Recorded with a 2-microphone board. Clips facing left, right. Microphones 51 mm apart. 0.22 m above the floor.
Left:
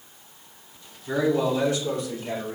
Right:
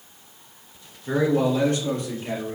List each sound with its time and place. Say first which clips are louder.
1.1 s a man speaking: right 2 dB; 55° right (ahead or behind), 2.5 m